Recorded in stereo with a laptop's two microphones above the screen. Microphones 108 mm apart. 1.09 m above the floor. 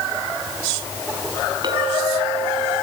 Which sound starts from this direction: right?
A clink, at 1.6 s.